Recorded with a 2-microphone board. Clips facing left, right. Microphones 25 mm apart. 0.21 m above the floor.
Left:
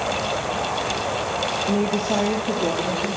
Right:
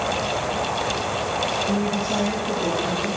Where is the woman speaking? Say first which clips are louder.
Left 1 dB; 75° left (ahead or behind), 4.5 m; by 3.1 s 80° left, 5.5 m.